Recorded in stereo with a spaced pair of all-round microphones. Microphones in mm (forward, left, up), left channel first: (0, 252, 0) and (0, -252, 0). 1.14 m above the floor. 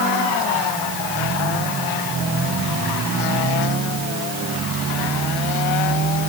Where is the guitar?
No guitar in this recording.